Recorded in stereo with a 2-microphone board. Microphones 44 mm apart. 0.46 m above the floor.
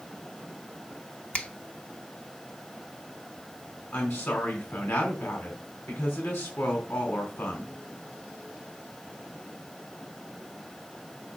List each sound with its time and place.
1.3 s a finger snap: 30° left (ahead or behind), 1.2 m
3.9 s a woman speaking: 75° left (ahead or behind), 4 m